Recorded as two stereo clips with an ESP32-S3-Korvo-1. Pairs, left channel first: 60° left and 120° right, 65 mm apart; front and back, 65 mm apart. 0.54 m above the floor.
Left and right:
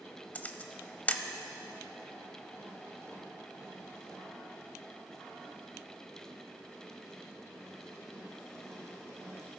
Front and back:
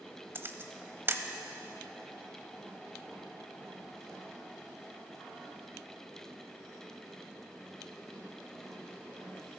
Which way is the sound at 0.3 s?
125° left.